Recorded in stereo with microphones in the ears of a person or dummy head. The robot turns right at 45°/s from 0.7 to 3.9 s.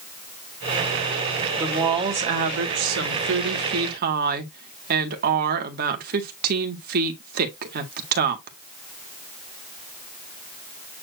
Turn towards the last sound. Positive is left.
turn(degrees=-65)